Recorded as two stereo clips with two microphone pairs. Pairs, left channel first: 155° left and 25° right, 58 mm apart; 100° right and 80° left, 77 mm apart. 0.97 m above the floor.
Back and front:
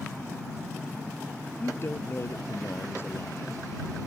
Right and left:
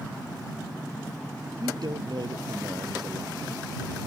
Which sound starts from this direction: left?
A man speaking, at 1.6 s.